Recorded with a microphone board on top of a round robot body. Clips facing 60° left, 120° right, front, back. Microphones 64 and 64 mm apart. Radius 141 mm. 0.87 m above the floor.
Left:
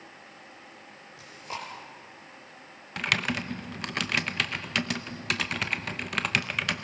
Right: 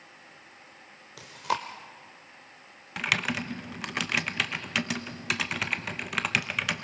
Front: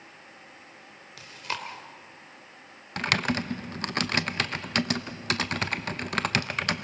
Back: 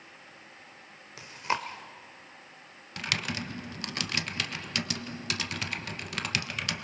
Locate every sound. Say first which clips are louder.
1.2 s chewing: right 8 dB, back 4 dB; 115° right, 0.7 m
3.0 s typing on a keyboard: even, front 7 dB; 35° right, 1.1 m